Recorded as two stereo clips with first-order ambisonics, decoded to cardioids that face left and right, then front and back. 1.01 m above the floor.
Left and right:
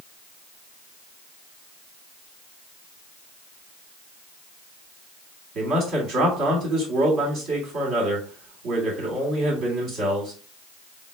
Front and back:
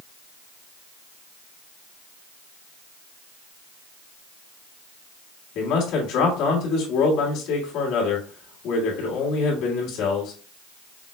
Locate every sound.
5.5 s a man speaking: 35° right, 1.8 m